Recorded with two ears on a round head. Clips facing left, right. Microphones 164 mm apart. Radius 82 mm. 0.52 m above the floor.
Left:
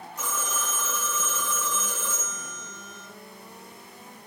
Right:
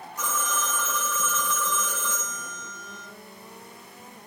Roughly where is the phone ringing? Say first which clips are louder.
Right 3 dB; left.